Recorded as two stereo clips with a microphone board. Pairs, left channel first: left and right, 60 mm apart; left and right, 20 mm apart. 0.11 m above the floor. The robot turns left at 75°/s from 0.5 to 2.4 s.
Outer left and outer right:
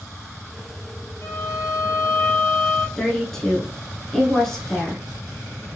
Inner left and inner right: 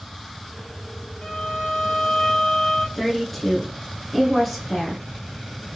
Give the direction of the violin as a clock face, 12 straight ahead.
8 o'clock.